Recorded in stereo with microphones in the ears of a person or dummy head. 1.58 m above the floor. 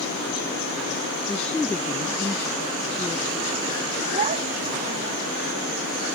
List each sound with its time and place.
1.3 s a woman speaking: 5° left (ahead or behind)
4.1 s a child speaking: 35° right (ahead or behind)